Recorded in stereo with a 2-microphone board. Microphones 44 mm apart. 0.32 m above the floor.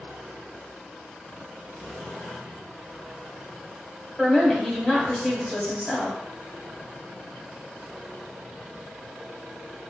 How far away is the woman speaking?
About 1.1 m.